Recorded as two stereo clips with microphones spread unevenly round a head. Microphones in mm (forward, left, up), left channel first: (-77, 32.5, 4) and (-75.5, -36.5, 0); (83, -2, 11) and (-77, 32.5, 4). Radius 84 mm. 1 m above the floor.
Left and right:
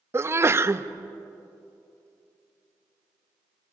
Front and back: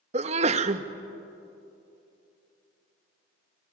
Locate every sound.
0.1 s a sneeze: 140° right, 1.0 m